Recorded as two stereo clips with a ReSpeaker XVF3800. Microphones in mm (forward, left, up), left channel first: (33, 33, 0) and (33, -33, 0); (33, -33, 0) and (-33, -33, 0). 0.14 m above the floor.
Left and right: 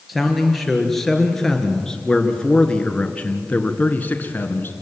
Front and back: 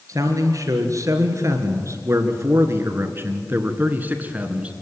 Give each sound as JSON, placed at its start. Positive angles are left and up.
{"t": 0.1, "sound": "a man speaking", "azimuth_deg": 180, "distance_m": 3.0}